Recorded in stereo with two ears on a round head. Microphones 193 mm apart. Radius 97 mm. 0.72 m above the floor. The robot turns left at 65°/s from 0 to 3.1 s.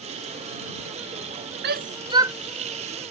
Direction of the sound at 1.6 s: 55° right (ahead or behind).